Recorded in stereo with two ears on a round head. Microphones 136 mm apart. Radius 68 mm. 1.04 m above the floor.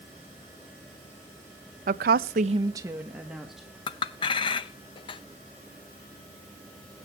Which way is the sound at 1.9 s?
55° right (ahead or behind).